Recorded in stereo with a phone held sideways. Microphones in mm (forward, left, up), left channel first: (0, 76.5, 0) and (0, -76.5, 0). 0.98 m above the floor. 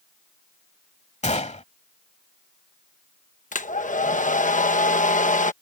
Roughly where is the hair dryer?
Left.